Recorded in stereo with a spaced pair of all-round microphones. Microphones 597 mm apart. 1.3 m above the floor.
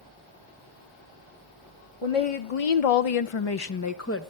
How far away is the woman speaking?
About 1.0 m.